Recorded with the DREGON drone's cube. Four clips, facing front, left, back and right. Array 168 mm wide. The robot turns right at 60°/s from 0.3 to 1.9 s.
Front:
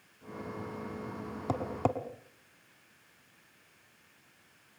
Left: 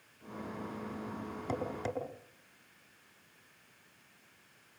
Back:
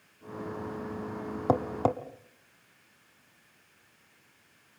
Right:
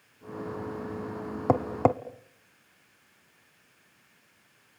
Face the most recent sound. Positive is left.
turn(degrees=-100)